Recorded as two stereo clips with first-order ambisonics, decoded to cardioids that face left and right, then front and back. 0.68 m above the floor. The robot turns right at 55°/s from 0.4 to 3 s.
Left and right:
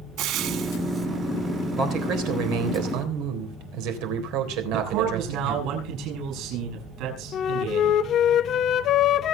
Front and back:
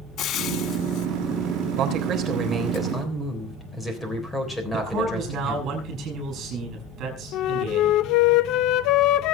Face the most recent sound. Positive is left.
turn(degrees=35)